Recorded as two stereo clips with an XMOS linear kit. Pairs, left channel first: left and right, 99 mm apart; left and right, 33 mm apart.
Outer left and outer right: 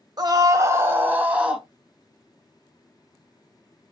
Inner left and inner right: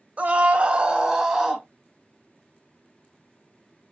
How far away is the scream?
About 1.4 m.